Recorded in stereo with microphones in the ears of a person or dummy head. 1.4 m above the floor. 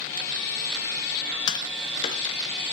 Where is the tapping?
30° left (ahead or behind), 0.7 m.